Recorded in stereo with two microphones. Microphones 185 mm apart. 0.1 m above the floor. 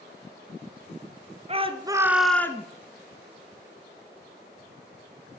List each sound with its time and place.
1.5 s a shout: 35° right (ahead or behind), 1.5 m; by 2.7 s 20° left (ahead or behind), 1.2 m